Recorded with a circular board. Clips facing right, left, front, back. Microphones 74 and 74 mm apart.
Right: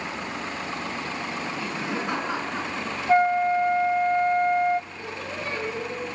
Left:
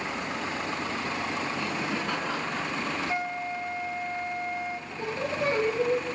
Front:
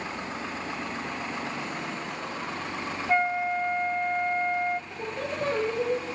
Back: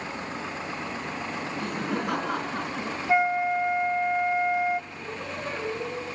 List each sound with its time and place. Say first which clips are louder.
1.6 s laughter: right 1 dB, back 4 dB; 160° right, 3 m
3.1 s a flute: right 12 dB, back 2 dB; 100° right, 1.1 m
4.9 s singing: left 3 dB, front 3 dB; 30° left, 9 m